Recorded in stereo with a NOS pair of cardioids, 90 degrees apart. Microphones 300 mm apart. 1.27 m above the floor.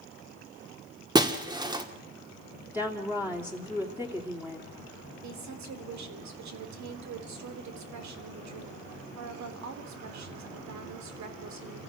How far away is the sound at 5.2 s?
About 3 m.